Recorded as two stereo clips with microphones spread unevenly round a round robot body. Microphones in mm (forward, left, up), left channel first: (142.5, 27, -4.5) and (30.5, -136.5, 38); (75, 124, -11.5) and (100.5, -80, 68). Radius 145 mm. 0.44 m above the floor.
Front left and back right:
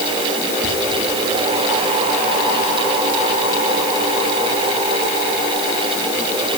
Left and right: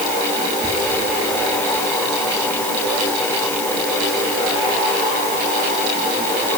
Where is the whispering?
15° right, 7 m.